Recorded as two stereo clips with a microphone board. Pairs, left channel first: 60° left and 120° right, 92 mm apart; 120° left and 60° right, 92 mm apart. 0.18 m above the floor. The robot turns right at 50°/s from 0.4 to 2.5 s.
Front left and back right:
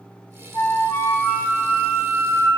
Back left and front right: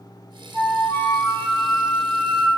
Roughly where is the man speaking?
I don't hear a man speaking.